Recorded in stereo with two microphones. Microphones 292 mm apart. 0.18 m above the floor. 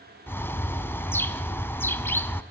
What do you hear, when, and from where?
0.3 s a bird: 10° left (ahead or behind), 0.9 m